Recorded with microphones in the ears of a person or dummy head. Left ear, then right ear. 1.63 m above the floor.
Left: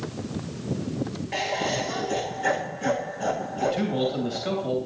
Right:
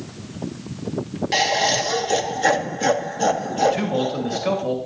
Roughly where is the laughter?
Right.